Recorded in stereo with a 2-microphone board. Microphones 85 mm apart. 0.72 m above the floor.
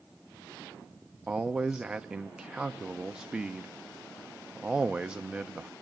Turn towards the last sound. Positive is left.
turn(degrees=-10)  # may be behind; listen again after turning